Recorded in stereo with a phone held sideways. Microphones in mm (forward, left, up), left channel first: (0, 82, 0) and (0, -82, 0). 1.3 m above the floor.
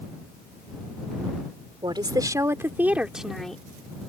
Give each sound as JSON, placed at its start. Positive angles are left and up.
{"t": 1.8, "sound": "a woman speaking", "side_deg": -25}